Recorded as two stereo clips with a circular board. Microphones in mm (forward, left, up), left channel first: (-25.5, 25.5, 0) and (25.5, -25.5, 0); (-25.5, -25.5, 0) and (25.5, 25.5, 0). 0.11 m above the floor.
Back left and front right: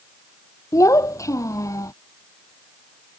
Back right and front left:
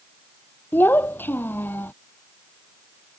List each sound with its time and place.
0.7 s a child speaking: 165° left